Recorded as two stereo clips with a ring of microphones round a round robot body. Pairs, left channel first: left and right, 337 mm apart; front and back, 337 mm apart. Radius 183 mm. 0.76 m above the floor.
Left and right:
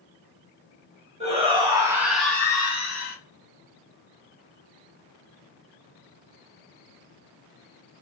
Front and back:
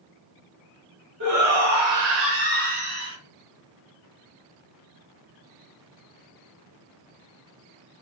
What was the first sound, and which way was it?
A shout, 160° right.